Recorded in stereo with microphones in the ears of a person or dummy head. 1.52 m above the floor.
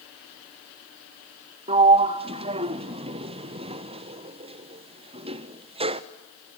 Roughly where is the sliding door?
Right.